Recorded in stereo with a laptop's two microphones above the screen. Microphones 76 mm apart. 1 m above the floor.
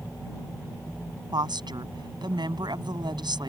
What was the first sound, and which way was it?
A woman speaking, 85° right.